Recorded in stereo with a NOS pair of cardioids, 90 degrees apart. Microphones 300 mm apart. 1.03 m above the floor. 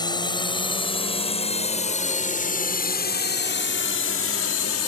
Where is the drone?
15° left; by 4.9 s 65° left.